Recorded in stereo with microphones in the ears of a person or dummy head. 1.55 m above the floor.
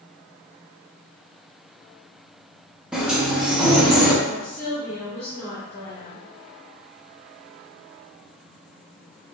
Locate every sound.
2.9 s a sliding door: 5° right (ahead or behind), 0.9 m
4.2 s a woman speaking: 10° left (ahead or behind), 2 m